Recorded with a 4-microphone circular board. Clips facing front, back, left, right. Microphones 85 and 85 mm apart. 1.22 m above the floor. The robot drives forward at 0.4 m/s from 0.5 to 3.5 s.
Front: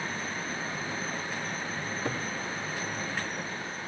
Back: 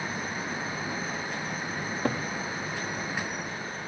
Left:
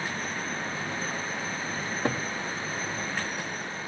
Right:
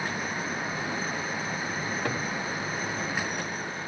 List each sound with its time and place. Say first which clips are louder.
1.8 s a cupboard door: back 5 dB, left 3 dB; 150° left, 2.5 m; by 2.2 s 155° left, 2.5 m